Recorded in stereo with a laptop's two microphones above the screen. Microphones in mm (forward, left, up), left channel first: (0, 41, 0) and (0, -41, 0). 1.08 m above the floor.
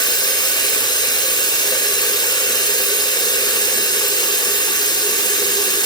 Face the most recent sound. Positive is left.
turn(degrees=60)  # may be behind; listen again after turning